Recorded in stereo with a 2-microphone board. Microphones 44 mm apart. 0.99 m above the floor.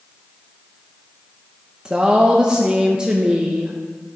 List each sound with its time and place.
1.9 s a woman speaking: 20° right (ahead or behind), 0.6 m